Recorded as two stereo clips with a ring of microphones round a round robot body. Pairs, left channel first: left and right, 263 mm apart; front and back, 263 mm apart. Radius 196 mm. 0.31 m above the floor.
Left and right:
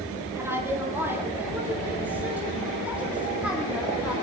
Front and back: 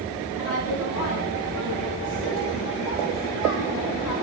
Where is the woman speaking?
10° right, 8.5 m; by 4.1 s 5° right, 12.5 m.